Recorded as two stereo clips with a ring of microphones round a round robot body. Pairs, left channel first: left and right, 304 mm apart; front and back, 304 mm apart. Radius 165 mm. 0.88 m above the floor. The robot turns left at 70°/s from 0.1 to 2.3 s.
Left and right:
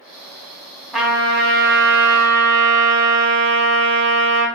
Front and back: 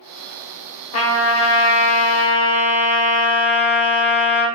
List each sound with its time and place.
0.9 s a trumpet: straight ahead, 1.0 m; by 4.5 s 95° right, 1.0 m